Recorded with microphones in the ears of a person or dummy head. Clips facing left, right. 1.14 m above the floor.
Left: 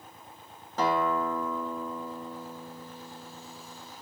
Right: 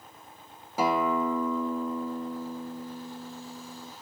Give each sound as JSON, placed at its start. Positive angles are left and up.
{"t": 0.8, "sound": "a guitar", "side_deg": -15, "distance_m": 0.5}